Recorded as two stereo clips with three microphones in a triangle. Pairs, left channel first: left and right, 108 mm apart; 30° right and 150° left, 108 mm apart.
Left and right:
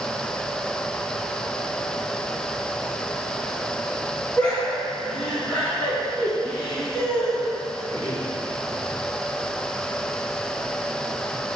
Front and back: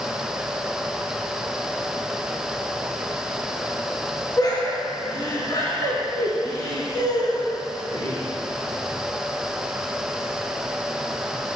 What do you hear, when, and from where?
4.4 s laughter: 15° left, 3.5 m